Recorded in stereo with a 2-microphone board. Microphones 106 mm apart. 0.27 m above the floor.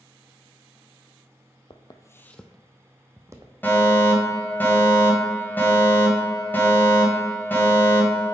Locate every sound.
1.7 s footsteps: 50° left (ahead or behind), 0.6 m; by 3.5 s 30° right (ahead or behind), 1.0 m
3.6 s a fire alarm: 20° left (ahead or behind), 1.9 m